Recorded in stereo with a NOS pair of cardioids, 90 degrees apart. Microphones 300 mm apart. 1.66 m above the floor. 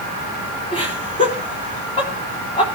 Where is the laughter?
15° left, 3.5 m.